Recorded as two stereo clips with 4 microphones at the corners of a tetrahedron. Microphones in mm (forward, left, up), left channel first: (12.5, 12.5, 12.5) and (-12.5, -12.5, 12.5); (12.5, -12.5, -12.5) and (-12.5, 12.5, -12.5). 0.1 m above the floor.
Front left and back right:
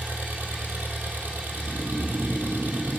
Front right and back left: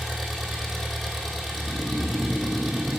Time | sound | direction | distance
0.0 | an engine running | 135° right | 2 m
1.6 | snoring | straight behind | 1.9 m